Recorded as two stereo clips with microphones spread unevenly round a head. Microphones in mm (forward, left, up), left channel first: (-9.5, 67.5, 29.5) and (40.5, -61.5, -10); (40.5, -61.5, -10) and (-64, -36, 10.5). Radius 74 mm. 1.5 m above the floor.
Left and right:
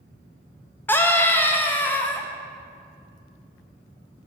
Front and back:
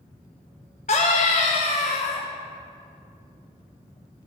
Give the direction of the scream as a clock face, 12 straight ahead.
11 o'clock.